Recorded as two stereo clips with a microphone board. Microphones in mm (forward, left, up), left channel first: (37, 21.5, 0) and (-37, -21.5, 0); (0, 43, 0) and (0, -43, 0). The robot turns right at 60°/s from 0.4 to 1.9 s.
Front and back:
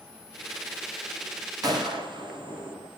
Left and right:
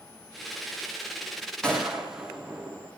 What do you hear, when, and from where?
1.6 s a gunshot: 170° left, 4.5 m; by 2.9 s 175° right, 4.5 m